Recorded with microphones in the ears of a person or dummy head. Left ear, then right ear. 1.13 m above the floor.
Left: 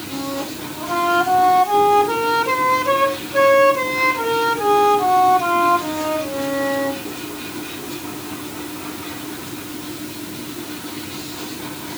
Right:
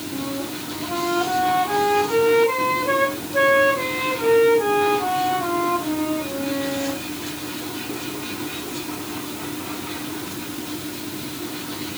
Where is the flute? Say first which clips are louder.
Left 4 dB; 75° left (ahead or behind), 5 m.